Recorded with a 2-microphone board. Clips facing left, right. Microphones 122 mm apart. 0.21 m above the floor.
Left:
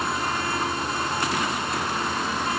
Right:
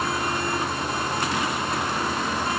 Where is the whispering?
No whispering in this recording.